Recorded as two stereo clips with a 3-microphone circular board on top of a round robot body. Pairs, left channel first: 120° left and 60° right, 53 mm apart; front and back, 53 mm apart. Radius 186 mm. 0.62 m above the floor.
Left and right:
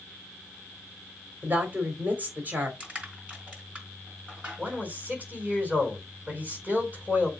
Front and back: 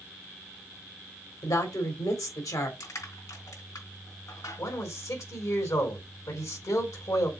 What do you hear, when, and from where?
1.4 s a woman speaking: 5° right, 3.5 m
2.8 s crushing: 10° left, 3.5 m
4.6 s a man speaking: straight ahead, 4 m